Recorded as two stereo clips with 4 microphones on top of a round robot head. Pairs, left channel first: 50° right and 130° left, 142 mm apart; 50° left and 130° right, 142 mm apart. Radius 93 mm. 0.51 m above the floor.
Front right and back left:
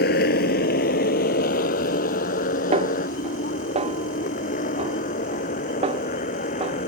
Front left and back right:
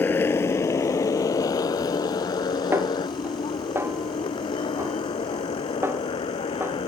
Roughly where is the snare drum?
Behind.